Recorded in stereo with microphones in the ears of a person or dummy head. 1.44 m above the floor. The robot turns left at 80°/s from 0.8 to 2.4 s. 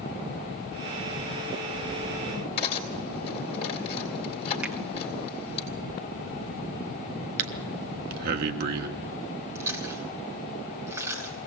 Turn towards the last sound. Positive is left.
turn(degrees=-20)  # may be behind; listen again after turning